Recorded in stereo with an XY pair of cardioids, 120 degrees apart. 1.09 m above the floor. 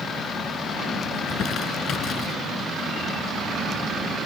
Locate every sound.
1.1 s crumpling: 55° left